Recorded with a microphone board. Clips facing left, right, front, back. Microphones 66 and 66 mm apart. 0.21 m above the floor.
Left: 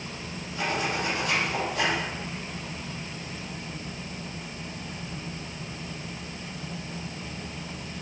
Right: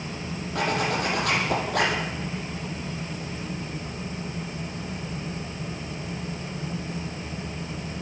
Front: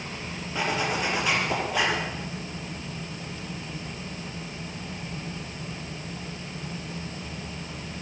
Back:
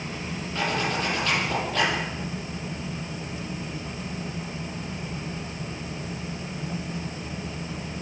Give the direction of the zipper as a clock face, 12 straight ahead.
3 o'clock.